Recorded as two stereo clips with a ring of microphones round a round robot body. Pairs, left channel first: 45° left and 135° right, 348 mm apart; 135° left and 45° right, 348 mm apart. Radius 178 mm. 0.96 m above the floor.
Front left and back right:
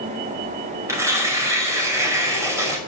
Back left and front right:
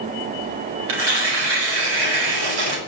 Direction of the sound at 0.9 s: 55° right.